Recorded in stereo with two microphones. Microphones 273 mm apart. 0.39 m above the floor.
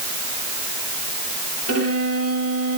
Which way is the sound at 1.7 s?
65° right (ahead or behind).